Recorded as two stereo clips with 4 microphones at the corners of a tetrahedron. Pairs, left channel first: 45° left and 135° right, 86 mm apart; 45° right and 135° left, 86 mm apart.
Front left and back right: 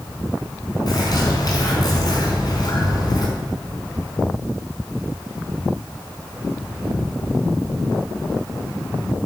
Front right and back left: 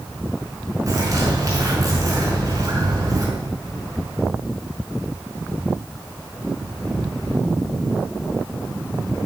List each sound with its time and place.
0.9 s a bird: 85° left, 5.5 m